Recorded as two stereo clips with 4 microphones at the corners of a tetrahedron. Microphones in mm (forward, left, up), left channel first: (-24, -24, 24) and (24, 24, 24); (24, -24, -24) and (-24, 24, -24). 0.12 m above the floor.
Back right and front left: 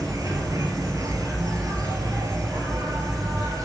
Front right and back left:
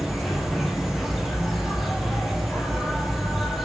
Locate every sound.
0.0 s an insect: 50° left, 1.4 m